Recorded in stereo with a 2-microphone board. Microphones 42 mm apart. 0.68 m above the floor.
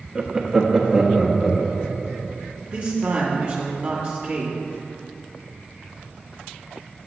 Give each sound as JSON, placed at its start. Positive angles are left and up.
{"t": 0.1, "sound": "laughter", "side_deg": -15, "distance_m": 0.6}
{"t": 2.7, "sound": "a man speaking", "side_deg": -35, "distance_m": 1.6}